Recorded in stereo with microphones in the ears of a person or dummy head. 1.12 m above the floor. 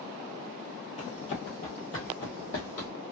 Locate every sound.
1.0 s running footsteps: 30° left (ahead or behind), 1.4 m; by 2.9 s 40° left (ahead or behind), 1.6 m